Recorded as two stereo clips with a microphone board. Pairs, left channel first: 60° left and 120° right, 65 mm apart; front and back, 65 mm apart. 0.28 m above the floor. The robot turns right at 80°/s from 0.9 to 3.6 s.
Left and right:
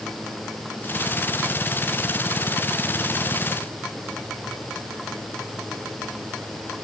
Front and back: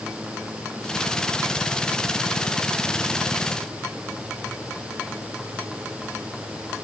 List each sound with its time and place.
Only background noise.